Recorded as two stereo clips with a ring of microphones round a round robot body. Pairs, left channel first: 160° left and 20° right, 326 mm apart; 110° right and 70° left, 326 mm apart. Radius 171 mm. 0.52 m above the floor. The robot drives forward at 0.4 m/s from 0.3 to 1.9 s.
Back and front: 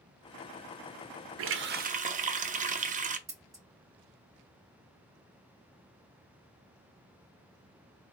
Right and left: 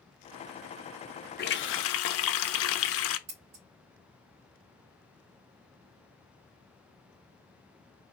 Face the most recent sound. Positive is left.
turn(degrees=55)